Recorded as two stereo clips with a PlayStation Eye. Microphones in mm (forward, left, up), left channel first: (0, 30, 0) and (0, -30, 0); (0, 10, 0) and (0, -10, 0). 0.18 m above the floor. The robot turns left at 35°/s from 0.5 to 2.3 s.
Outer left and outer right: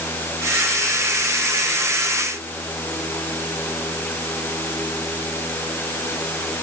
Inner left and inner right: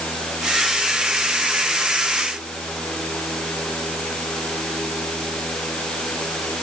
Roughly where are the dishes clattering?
I don't hear dishes clattering.